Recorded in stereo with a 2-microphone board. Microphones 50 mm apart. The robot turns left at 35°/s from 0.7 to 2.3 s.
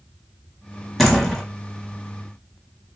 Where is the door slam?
5° left (ahead or behind), 1.3 m; by 1.4 s 15° left (ahead or behind), 1.3 m.